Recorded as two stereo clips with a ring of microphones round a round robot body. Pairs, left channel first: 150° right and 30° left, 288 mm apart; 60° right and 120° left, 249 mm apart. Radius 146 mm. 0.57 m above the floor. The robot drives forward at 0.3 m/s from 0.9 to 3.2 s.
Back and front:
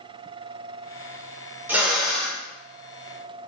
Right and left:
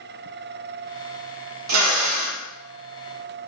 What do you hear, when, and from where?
1.7 s a drill: 115° left, 0.9 m; by 2.4 s 125° left, 1.0 m